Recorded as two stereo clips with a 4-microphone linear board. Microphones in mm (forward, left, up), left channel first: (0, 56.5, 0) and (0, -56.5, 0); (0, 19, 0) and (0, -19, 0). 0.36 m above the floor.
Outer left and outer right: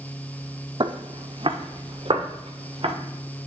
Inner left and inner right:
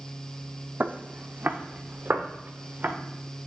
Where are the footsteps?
45° right (ahead or behind), 0.7 m; by 2.9 s 50° right (ahead or behind), 1.9 m.